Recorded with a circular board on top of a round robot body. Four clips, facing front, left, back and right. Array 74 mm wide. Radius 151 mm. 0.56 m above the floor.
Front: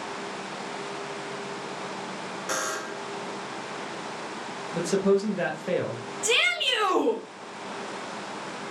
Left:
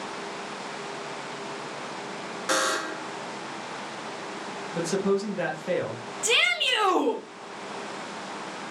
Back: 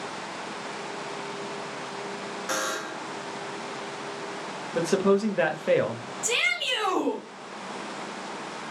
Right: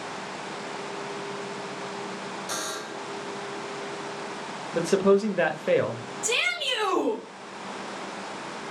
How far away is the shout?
About 2.0 m.